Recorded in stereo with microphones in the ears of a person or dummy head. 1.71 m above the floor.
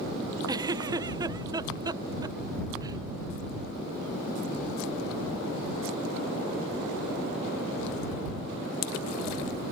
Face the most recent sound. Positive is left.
turn(degrees=-20)  # may be behind; listen again after turning